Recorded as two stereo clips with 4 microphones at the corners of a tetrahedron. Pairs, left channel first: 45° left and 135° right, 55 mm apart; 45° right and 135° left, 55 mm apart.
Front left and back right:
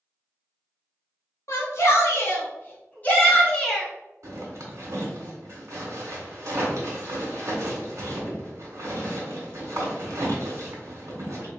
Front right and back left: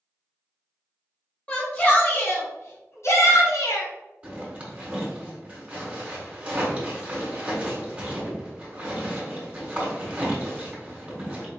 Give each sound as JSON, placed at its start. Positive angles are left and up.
{"t": 1.5, "sound": "a shout", "azimuth_deg": 15, "distance_m": 1.5}
{"t": 4.2, "sound": "a zipper", "azimuth_deg": -160, "distance_m": 1.7}